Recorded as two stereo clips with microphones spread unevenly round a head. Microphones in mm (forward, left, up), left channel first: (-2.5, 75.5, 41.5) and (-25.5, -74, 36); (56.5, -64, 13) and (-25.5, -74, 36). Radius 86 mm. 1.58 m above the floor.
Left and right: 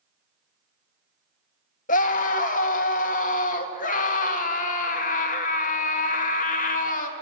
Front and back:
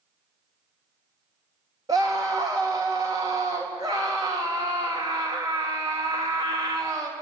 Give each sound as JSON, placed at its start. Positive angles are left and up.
{"t": 1.9, "sound": "a scream", "azimuth_deg": 120, "distance_m": 2.5}